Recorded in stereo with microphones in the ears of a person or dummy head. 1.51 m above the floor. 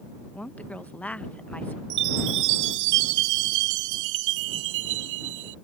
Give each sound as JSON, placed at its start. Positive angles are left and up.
{"t": 0.3, "sound": "a woman speaking", "side_deg": 5}
{"t": 1.9, "sound": "a chime", "side_deg": -70}